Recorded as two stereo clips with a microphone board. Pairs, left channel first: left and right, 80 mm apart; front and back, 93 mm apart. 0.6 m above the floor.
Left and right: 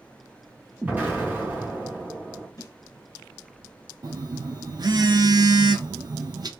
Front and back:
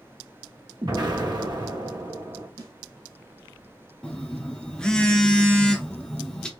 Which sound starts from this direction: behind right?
An explosion, at 0.8 s.